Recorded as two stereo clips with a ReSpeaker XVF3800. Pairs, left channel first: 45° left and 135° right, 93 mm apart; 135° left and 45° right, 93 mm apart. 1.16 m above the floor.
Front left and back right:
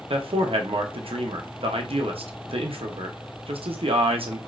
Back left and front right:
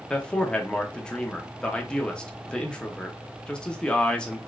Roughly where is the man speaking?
Behind right.